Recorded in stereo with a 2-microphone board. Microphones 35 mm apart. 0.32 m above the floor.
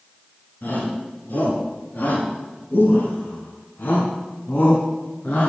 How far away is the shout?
About 4 m.